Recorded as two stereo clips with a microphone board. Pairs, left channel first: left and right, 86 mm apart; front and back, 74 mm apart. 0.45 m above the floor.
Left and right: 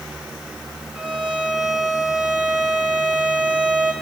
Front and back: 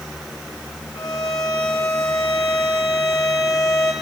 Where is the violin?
15° right, 2.5 m.